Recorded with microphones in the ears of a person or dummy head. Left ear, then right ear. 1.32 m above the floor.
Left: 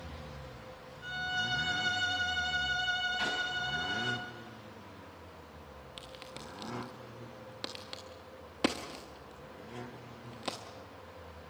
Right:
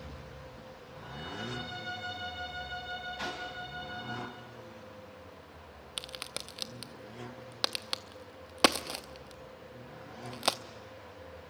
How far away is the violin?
About 7 m.